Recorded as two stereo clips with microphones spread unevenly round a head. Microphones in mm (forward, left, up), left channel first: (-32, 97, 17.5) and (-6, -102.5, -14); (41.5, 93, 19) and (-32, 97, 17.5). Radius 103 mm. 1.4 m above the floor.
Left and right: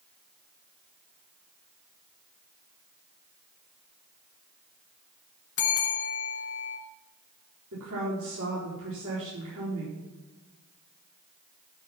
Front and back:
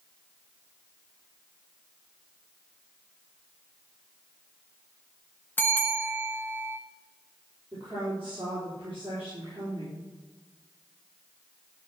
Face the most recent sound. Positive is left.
turn(degrees=-105)